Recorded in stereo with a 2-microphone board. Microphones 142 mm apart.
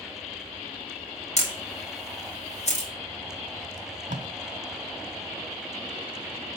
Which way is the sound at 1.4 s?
50° left (ahead or behind).